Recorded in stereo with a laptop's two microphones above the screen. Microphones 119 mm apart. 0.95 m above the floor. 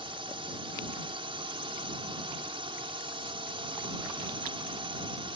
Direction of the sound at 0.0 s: 55° right (ahead or behind).